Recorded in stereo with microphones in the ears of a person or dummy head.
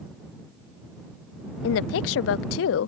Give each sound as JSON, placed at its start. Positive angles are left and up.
{"t": 1.6, "sound": "a woman speaking", "side_deg": 75}